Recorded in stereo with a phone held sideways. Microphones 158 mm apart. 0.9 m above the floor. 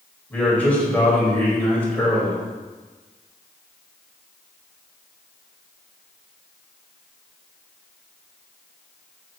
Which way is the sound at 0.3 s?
10° left (ahead or behind).